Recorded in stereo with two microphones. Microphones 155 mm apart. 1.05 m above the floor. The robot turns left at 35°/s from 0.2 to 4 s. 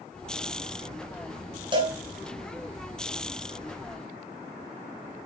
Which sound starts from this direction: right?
A cowbell, at 1.7 s.